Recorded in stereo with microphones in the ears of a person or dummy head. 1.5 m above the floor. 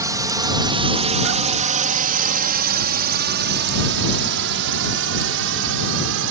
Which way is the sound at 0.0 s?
15° right (ahead or behind).